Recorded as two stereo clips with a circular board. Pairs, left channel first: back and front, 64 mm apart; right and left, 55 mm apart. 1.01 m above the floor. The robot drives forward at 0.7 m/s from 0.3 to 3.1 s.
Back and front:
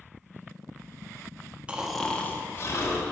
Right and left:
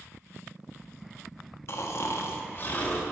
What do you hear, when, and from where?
1.7 s snoring: 70° right, 0.6 m; by 3.0 s 150° right, 0.9 m